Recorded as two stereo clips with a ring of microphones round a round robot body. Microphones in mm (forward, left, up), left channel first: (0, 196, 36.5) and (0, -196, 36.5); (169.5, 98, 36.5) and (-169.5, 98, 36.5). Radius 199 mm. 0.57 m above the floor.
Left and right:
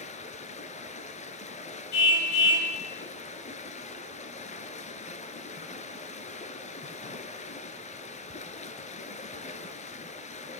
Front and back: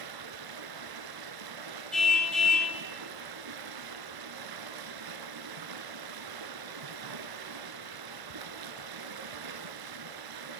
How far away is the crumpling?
No crumpling in this recording.